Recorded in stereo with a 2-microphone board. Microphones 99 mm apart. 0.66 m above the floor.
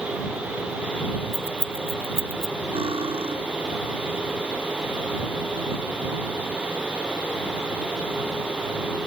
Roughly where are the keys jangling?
Left.